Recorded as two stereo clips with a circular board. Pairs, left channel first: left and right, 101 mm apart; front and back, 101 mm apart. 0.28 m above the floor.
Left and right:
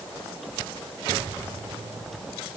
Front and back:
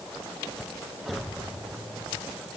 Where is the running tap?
I don't hear a running tap.